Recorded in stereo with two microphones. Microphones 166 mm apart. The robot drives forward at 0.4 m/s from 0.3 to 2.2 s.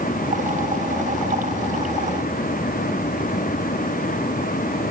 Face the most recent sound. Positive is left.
No sound to turn to.